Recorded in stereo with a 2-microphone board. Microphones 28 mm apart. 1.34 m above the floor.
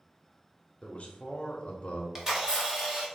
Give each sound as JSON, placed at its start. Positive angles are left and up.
{"t": 0.8, "sound": "a man speaking", "side_deg": 45, "distance_m": 0.6}
{"t": 2.1, "sound": "a camera shutter", "side_deg": -20, "distance_m": 0.9}